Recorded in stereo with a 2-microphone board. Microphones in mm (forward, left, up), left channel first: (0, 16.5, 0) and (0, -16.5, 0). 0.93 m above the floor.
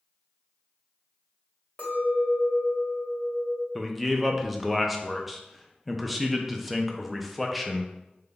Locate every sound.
1.8 s a clink: 45° left (ahead or behind), 1.8 m
3.8 s a man speaking: centre (ahead or behind), 0.5 m